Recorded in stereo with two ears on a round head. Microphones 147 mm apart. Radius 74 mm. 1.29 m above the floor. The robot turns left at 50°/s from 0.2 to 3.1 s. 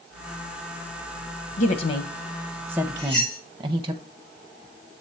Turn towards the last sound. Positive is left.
turn(degrees=70)  # may be behind; listen again after turning